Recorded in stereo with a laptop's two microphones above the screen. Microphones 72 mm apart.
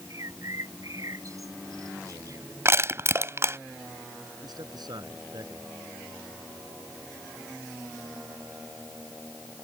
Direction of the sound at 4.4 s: 65° right (ahead or behind).